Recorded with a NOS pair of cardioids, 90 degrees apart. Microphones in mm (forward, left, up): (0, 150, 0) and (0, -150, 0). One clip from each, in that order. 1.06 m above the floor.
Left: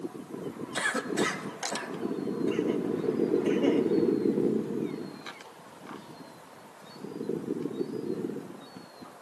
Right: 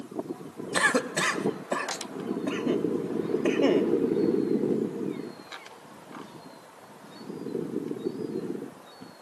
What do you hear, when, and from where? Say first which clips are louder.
0.7 s a cough: right 5 dB; 55° right, 1.4 m